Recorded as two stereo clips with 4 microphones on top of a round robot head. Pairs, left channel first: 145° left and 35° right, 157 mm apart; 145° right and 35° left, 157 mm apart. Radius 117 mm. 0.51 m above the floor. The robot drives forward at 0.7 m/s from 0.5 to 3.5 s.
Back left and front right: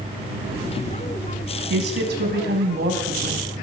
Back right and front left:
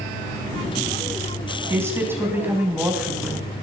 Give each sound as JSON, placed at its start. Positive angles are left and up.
{"t": 1.7, "sound": "a woman speaking", "azimuth_deg": -40, "distance_m": 4.0}